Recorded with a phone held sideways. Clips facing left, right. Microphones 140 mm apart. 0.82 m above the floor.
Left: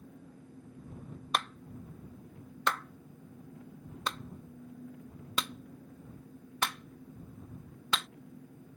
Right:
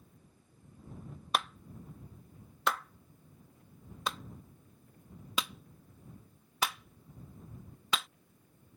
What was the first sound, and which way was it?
An engine running, 85° left.